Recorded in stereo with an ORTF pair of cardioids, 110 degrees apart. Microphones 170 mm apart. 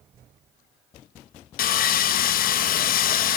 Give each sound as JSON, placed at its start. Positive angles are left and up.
{"t": 1.6, "sound": "sawing", "azimuth_deg": 55, "distance_m": 1.0}